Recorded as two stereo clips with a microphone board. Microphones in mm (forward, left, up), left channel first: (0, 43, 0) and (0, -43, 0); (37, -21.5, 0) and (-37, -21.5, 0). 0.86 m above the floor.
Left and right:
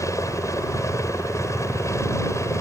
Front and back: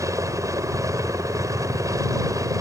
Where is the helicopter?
140° left; by 2.6 s 145° left.